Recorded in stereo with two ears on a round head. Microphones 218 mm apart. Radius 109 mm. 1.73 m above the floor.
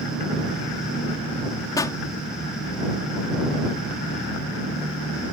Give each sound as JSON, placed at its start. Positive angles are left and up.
{"t": 1.8, "sound": "a pop", "side_deg": 15}